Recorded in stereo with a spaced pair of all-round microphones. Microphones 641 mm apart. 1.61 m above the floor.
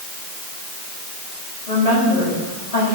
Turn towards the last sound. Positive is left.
turn(degrees=70)  # may be behind; listen again after turning